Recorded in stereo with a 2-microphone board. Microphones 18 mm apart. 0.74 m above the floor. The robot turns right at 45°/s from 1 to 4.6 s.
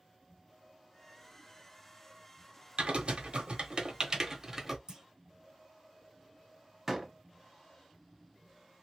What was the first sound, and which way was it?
Typing on a keyboard, 65° right (ahead or behind).